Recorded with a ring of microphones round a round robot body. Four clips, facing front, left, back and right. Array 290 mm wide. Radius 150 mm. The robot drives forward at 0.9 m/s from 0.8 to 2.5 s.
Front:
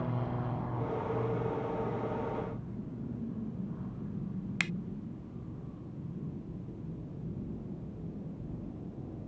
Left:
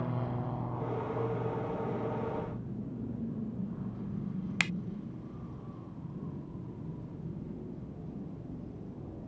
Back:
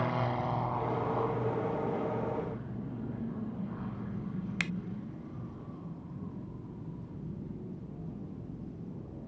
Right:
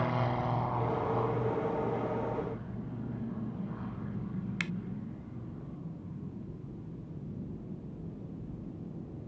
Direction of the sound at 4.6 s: 90° left.